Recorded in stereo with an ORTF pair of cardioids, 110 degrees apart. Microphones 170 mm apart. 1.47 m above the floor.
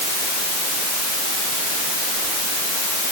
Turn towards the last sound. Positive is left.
No sound to turn to.